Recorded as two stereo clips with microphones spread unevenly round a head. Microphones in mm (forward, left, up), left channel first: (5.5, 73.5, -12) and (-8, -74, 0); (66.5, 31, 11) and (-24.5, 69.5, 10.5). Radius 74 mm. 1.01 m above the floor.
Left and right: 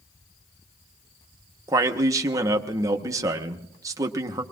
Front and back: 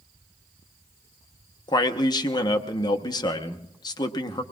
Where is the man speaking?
30° right, 0.9 m.